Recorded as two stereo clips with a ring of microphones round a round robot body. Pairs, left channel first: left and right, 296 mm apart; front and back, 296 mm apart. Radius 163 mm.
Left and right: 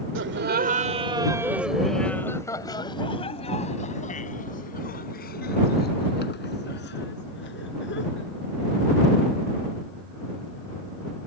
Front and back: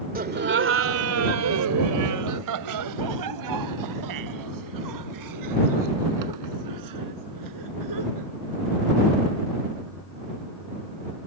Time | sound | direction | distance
0.1 | laughter | 125° right | ?